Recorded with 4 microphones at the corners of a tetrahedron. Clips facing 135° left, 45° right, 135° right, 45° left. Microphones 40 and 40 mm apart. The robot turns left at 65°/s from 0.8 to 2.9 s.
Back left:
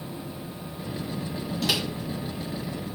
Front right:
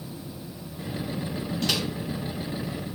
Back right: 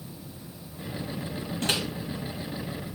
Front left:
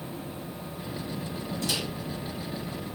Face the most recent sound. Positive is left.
turn(degrees=140)